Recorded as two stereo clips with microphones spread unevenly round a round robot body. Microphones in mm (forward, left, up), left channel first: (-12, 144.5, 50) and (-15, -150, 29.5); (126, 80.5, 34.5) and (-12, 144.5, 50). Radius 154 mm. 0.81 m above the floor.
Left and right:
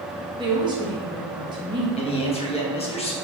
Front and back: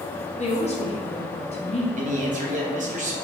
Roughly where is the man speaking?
Behind left.